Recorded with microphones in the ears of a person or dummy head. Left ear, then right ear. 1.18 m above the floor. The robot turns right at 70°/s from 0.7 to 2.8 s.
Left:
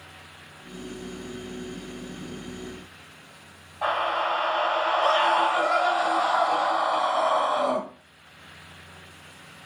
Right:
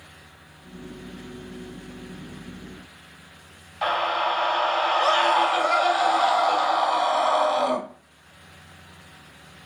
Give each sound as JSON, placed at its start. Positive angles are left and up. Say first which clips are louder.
{"t": 3.8, "sound": "a scream", "louder": "right 2 dB", "side_deg": -40, "distance_m": 1.1}